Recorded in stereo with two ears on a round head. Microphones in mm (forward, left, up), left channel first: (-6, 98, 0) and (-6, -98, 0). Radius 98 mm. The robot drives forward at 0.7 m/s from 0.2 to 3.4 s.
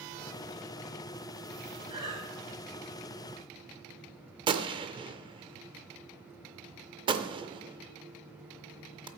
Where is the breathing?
25° right (ahead or behind), 4 m.